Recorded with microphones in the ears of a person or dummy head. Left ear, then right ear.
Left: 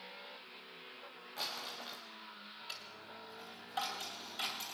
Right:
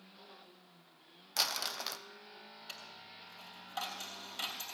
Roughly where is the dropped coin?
Centre.